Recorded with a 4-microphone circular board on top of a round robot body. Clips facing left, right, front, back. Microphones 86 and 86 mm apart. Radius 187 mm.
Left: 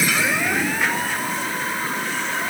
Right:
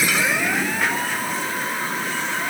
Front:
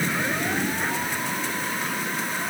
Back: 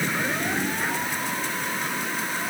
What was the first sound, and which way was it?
Only background noise.